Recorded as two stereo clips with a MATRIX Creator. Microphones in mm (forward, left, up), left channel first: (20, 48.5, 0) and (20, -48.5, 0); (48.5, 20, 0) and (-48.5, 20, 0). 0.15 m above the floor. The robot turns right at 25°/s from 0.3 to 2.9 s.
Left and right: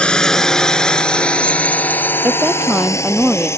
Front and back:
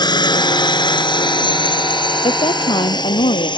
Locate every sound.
0.0 s a drone: 15° left; by 3.6 s 30° left
2.2 s a woman speaking: 25° right; by 3.5 s 10° right